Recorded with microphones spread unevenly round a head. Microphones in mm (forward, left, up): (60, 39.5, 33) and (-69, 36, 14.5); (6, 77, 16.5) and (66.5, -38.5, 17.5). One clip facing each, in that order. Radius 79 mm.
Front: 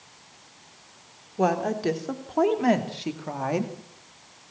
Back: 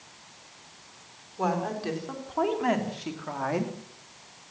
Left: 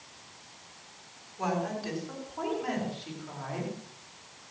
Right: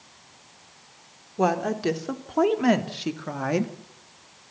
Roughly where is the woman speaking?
Ahead right.